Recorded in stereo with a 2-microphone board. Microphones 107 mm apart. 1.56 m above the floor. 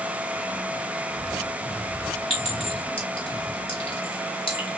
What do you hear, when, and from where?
2.3 s a clink: 55° left (ahead or behind), 2.5 m